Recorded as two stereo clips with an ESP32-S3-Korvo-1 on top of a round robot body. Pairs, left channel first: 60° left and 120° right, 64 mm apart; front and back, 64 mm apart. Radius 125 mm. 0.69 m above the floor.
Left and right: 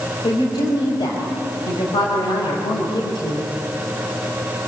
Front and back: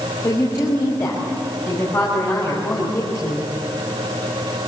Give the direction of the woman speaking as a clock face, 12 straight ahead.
10 o'clock.